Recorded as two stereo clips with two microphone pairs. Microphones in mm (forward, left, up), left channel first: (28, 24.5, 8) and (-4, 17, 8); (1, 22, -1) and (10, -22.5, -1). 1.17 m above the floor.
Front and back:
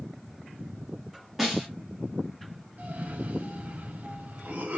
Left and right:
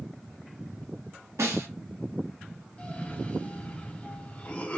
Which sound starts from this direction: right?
A snare drum, at 1.4 s.